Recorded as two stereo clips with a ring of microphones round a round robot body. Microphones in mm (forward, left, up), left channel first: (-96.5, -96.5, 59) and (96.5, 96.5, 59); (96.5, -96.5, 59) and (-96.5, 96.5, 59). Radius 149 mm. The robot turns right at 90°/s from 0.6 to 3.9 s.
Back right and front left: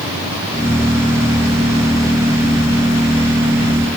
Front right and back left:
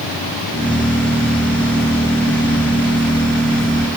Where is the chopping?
No chopping in this recording.